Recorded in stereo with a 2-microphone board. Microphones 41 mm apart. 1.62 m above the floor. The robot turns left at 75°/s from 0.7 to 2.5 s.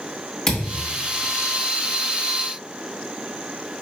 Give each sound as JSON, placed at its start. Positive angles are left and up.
{"t": 0.5, "sound": "a thud", "side_deg": 15, "distance_m": 1.4}